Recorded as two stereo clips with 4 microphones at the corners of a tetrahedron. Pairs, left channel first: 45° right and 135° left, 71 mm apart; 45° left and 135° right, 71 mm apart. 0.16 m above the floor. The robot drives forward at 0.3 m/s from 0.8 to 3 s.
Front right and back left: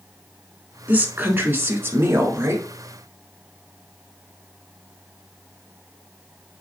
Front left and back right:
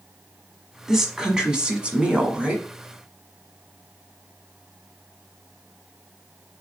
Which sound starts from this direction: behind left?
A woman speaking, at 0.9 s.